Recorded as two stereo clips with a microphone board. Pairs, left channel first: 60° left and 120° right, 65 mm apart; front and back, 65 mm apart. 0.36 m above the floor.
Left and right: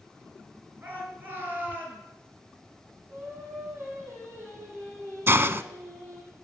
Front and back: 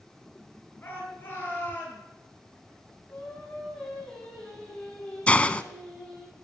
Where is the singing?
75° right, 8 m.